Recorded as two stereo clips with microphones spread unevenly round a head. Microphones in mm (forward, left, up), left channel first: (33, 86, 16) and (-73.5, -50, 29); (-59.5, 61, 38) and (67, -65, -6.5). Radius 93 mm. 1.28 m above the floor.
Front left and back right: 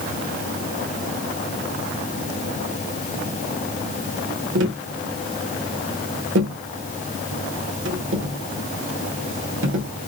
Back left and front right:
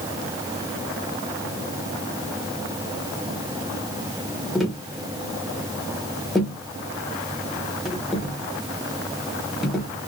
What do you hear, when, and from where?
4.5 s tapping: 130° right, 1.1 m